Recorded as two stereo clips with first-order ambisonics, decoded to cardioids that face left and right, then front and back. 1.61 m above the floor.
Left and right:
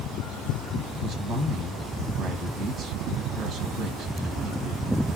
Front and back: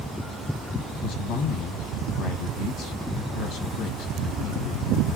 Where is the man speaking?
35° right, 1.9 m.